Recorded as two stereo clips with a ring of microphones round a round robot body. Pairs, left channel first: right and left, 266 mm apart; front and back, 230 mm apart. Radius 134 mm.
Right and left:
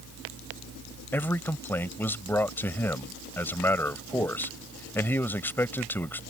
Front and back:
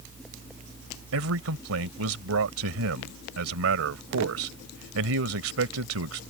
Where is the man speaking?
170° right.